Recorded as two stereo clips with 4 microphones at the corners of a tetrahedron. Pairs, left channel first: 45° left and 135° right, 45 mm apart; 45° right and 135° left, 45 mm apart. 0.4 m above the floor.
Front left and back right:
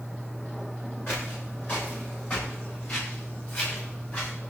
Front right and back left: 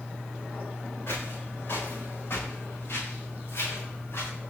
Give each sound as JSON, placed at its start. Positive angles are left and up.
{"t": 1.1, "sound": "footsteps", "azimuth_deg": -5, "distance_m": 9.5}